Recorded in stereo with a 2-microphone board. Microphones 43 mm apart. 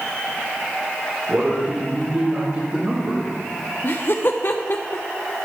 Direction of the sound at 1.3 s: 45° right (ahead or behind).